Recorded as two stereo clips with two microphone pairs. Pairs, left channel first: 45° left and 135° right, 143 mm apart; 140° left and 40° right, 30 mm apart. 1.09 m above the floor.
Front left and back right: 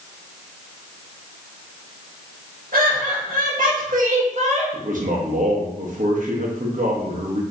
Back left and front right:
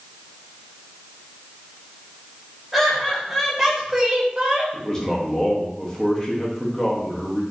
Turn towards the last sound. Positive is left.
turn(degrees=-155)